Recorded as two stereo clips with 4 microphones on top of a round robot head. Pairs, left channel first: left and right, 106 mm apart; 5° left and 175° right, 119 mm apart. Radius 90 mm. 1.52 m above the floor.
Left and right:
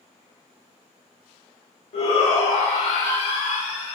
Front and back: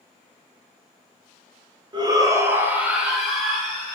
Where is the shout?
135° left, 1.0 m; by 4.0 s 85° left, 1.8 m.